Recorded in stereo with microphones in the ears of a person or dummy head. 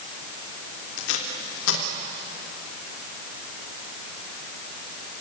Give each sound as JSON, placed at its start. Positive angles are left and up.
{"t": 1.0, "sound": "tape being pulled", "side_deg": 85, "distance_m": 3.0}